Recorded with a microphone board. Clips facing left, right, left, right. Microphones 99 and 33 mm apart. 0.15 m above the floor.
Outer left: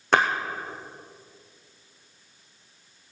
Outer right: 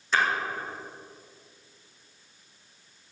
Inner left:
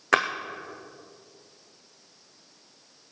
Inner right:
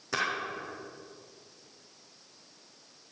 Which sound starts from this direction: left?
A splash, at 0.1 s.